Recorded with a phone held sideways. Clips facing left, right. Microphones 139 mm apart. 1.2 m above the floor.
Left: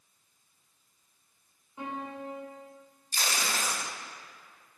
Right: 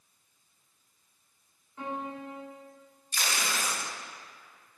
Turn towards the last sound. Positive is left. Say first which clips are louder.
# even
turn(degrees=30)  # may be behind; listen again after turning